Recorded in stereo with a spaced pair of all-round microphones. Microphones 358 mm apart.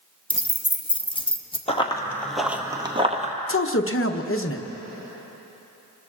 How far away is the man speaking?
About 0.8 m.